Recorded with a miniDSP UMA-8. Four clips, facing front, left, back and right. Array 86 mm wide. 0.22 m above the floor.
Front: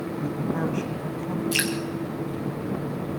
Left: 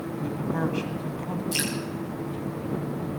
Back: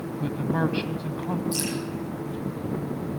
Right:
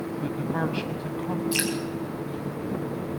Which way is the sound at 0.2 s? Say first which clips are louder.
Left 1 dB, back 2 dB; 160° right.